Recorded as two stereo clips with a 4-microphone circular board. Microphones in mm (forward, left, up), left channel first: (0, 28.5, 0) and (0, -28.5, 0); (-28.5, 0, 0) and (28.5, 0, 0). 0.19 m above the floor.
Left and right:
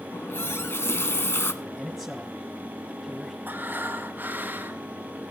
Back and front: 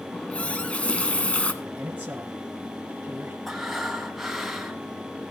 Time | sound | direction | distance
0.1 | a running tap | 115° left | 1.3 m
1.6 | a man speaking | 10° left | 1.7 m
3.5 | breathing | 80° right | 2.0 m